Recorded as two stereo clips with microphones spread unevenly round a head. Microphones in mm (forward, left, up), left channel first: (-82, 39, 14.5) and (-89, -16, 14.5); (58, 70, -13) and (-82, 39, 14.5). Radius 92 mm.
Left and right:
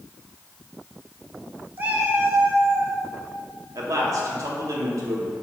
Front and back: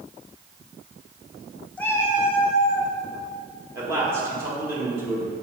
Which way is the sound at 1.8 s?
80° right.